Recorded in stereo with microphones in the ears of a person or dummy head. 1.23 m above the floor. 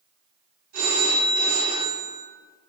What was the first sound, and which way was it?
A phone ringing, 60° right (ahead or behind).